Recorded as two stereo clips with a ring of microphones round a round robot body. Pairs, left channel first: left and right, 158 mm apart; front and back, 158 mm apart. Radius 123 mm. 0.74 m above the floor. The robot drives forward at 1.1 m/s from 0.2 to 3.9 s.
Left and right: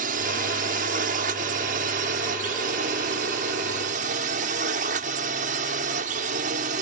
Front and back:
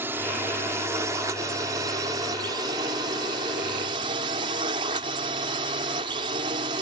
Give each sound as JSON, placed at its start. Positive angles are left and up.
{"t": 0.0, "sound": "a drone", "azimuth_deg": -105}